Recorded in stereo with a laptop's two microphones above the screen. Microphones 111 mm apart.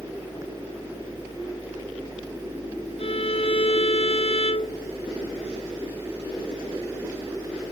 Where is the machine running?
30° right (ahead or behind).